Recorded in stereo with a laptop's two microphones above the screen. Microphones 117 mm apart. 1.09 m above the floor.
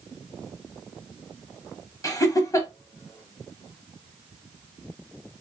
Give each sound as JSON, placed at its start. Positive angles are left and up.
{"t": 2.0, "sound": "laughter", "side_deg": 30, "distance_m": 0.9}